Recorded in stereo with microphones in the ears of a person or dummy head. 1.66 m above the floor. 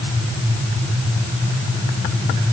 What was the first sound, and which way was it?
Only background noise.